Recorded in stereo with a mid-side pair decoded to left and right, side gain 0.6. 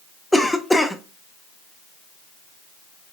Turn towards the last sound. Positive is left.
turn(degrees=5)